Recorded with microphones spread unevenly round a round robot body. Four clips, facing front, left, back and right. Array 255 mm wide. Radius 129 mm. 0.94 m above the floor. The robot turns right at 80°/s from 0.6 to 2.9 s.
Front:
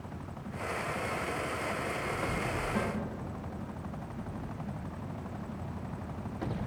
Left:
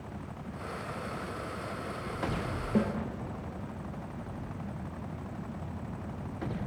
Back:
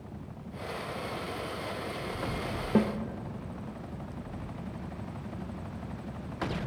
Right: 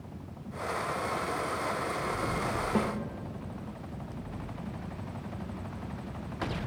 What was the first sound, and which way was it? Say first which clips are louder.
A snare drum: left 2 dB, back 10 dB; straight behind.